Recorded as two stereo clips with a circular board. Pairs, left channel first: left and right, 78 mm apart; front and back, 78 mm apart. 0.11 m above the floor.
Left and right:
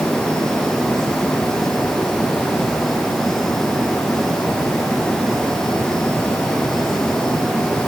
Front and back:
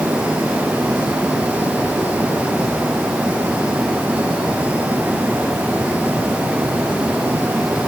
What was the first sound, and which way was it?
Only background noise.